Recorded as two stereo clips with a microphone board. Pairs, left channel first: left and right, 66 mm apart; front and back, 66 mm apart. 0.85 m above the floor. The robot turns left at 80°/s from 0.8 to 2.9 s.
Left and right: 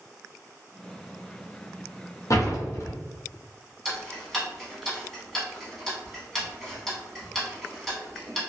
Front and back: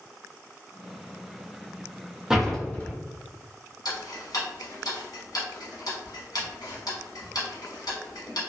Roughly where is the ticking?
Ahead.